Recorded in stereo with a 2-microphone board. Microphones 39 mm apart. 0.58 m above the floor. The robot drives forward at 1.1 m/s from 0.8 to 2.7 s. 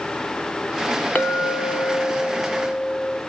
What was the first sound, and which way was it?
A clink, 40° left (ahead or behind).